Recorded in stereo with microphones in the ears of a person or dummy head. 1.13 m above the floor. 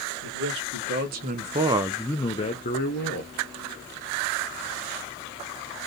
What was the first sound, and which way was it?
A man speaking, 65° right (ahead or behind).